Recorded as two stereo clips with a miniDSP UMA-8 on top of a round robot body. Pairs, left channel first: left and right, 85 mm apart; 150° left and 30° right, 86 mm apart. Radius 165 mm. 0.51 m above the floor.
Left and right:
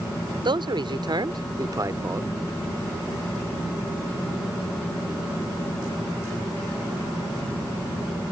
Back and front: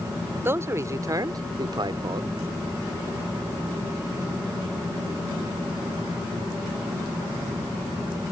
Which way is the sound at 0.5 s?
90° right.